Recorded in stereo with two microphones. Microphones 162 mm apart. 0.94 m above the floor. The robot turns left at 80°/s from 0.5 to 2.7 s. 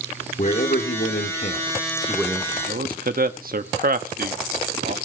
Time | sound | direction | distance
0.4 | a man speaking | 130° left | 2 m
2.7 | a man speaking | 60° right (ahead or behind) | 1.3 m